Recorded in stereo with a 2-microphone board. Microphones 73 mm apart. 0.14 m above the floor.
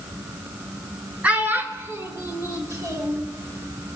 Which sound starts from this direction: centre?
A child speaking, at 1.2 s.